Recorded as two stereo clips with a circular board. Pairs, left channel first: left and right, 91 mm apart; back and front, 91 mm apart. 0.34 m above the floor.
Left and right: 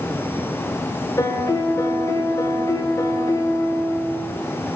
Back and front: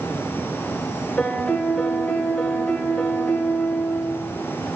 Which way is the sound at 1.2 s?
110° left.